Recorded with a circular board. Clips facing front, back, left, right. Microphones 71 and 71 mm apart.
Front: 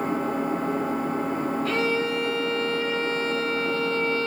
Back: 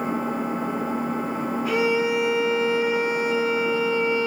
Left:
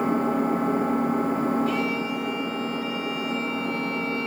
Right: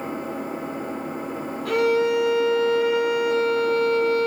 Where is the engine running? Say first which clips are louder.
Even, left 7 dB; 100° left, 3.5 m.